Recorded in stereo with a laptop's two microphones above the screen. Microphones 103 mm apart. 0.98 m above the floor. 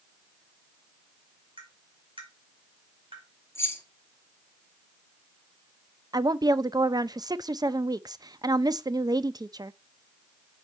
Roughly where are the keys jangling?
Left.